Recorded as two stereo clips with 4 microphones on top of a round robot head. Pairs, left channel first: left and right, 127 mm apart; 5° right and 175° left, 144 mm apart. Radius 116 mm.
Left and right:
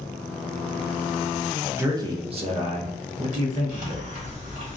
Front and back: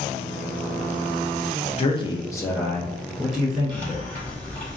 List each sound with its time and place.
1.8 s a man speaking: 25° right, 0.5 m; by 4.0 s 105° right, 1.2 m
3.7 s a hiss: 85° right, 1.5 m